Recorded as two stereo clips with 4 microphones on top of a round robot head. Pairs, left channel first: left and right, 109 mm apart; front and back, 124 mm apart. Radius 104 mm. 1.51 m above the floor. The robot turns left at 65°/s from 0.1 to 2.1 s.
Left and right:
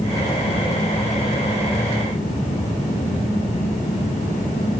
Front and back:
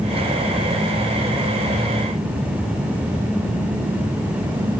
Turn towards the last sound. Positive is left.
No sound to turn to.